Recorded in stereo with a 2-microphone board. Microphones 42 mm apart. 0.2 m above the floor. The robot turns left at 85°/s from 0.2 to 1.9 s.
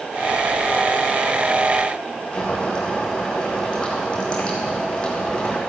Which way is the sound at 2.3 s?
20° left (ahead or behind).